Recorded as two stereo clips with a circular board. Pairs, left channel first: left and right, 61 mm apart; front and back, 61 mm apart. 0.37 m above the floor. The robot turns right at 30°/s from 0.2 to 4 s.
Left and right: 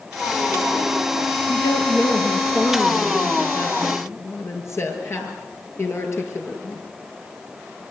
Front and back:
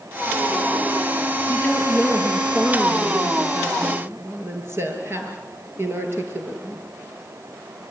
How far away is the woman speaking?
About 6.5 m.